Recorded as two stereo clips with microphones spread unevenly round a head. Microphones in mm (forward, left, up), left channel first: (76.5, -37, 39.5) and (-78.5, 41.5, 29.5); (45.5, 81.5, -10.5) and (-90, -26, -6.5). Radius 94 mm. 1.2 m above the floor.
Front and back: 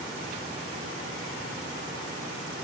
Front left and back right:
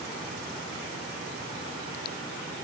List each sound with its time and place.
Only background noise.